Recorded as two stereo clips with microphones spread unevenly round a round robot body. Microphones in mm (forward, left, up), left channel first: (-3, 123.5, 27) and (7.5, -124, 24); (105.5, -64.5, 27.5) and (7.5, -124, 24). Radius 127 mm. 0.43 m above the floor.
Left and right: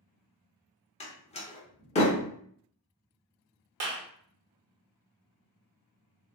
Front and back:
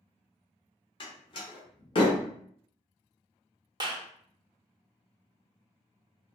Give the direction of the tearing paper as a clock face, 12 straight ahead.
No tearing paper in this recording.